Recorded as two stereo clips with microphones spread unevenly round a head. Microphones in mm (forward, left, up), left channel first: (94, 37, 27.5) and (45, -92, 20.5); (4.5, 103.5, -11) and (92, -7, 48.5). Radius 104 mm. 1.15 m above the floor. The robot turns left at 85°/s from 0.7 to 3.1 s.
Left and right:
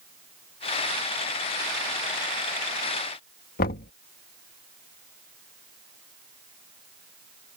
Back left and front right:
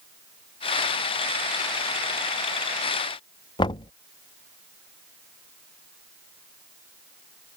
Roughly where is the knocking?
Left.